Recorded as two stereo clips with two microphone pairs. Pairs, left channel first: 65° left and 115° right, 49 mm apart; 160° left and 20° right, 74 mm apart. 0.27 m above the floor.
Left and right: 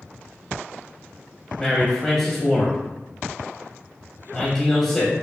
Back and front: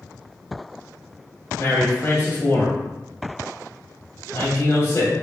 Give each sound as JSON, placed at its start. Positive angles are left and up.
{"t": 1.6, "sound": "a man speaking", "azimuth_deg": 145, "distance_m": 1.1}